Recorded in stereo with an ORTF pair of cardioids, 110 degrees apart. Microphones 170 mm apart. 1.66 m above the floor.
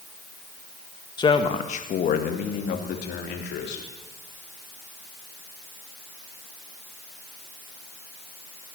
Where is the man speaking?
25° left, 1.7 m; by 3.9 s 80° left, 4 m.